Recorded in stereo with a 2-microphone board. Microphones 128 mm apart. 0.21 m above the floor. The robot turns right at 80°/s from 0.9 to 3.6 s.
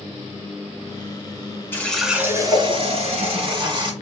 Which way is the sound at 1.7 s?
160° left.